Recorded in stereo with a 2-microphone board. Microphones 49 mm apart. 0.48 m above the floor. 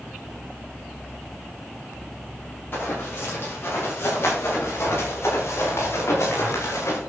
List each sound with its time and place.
2.7 s running footsteps: 45° left (ahead or behind), 7.5 m; by 7.0 s 70° left (ahead or behind), 6 m